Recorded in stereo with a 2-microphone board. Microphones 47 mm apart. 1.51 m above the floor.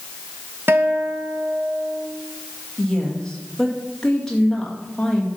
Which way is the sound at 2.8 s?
15° left (ahead or behind).